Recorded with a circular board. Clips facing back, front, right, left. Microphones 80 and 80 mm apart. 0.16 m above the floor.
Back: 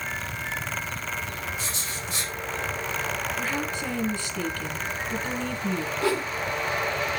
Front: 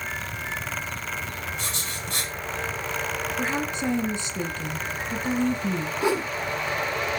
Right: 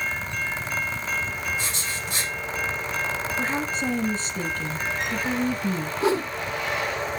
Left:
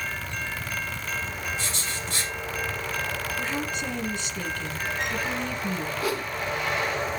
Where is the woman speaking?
55° right, 1.4 m.